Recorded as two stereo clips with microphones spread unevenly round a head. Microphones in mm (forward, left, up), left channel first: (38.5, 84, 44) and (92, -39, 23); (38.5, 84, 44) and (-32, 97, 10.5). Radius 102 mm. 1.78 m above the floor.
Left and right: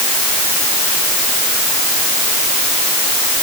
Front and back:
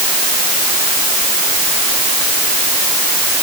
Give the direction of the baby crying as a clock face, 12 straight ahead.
No baby crying in this recording.